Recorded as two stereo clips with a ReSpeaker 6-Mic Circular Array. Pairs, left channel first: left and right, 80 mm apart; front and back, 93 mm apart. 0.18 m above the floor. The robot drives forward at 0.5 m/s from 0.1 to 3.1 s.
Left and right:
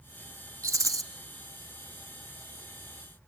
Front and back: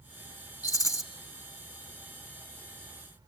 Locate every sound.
0.6 s a rattle: 40° right, 1.7 m; by 1.0 s 45° right, 1.6 m